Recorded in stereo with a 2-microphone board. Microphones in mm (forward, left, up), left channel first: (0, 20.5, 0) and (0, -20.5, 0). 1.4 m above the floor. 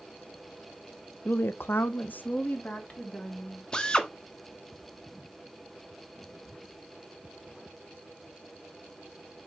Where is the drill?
20° left (ahead or behind), 1.2 m.